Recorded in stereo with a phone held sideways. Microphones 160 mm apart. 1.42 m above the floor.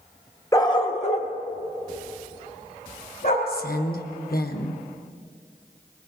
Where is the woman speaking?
75° left (ahead or behind), 1.1 m.